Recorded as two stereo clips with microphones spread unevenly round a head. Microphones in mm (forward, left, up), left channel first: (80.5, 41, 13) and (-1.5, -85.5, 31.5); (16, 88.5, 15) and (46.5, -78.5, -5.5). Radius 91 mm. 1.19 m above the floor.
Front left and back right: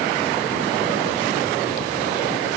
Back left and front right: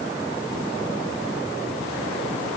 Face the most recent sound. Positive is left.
No sound to turn to.